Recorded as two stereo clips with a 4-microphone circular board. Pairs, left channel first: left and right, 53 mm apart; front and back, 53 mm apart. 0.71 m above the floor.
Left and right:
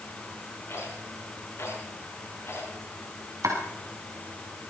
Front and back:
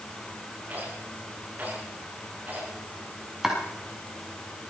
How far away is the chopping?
About 4 m.